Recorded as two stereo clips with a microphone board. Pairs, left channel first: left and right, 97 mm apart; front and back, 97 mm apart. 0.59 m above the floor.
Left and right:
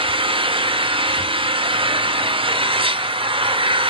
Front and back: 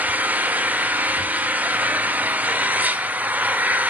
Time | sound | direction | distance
0.0 | an engine running | 110° right | 1.1 m